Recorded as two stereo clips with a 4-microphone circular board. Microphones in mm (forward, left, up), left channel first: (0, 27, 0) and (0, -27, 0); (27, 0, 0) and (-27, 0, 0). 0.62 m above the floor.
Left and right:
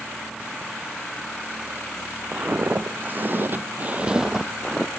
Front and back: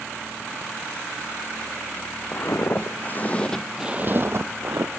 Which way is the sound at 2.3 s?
30° right.